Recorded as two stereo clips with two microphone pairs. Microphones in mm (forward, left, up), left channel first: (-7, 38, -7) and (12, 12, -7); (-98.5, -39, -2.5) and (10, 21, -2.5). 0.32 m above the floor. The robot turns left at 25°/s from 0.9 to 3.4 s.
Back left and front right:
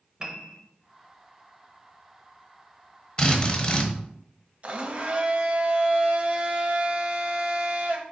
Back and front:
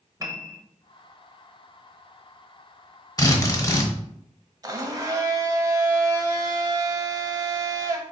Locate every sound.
0.2 s a piano: 10° right, 0.7 m
3.2 s a drill: 170° left, 0.9 m; by 3.9 s 165° left, 0.9 m
4.6 s a blender: 25° right, 0.6 m